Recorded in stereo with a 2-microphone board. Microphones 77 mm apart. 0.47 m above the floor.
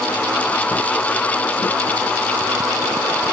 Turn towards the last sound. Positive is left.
No sound to turn to.